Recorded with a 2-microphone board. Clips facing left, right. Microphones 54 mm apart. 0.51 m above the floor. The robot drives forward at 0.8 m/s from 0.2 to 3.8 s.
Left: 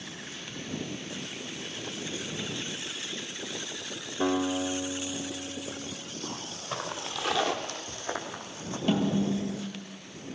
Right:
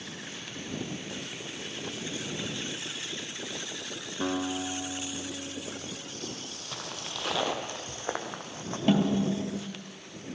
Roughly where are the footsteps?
Left.